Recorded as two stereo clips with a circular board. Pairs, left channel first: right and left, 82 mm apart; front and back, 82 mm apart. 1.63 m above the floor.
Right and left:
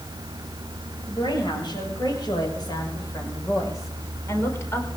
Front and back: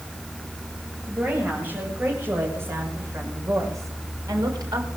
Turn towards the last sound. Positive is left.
turn(degrees=-150)